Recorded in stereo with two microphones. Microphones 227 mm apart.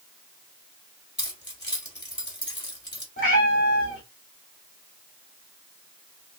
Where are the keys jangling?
50° left (ahead or behind), 2.5 m.